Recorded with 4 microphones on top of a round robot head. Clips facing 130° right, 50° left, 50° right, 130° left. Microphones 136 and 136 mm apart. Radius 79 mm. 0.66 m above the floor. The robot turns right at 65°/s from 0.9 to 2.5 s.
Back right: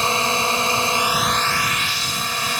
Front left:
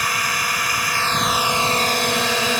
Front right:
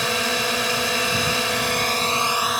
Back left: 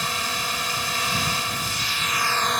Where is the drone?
65° right; by 2.6 s 40° left.